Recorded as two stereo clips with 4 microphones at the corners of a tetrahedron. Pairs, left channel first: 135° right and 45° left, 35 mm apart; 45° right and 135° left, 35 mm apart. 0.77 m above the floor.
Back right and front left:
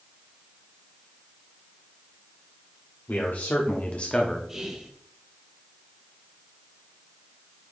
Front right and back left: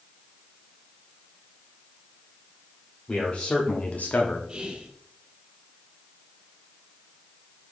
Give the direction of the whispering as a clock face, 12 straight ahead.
8 o'clock.